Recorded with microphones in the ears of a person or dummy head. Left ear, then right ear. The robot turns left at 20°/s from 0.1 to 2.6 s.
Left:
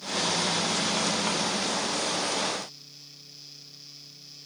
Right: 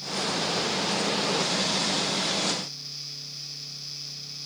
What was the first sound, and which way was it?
Only background noise.